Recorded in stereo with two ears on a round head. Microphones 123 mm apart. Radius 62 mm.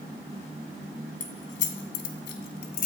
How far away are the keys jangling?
About 2 m.